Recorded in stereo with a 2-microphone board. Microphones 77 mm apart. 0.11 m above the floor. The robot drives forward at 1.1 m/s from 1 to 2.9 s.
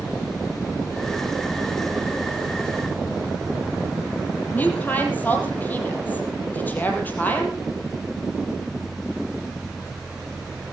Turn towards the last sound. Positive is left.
turn(degrees=20)  # may be behind; listen again after turning